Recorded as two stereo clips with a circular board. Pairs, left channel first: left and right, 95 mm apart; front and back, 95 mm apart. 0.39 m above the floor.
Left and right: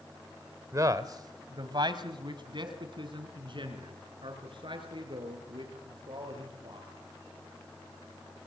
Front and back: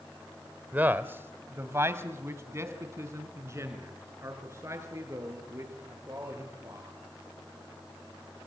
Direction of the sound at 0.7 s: 120° right.